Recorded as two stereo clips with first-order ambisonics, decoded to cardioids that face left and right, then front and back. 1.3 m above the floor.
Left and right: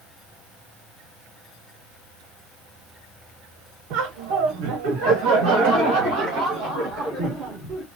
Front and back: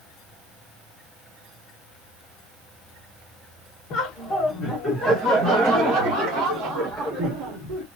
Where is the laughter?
55° right, 1.0 m; by 7.9 s 125° right, 2.5 m.